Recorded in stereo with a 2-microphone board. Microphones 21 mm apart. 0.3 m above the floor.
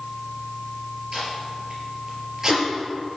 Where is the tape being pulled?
25° right (ahead or behind), 4 m.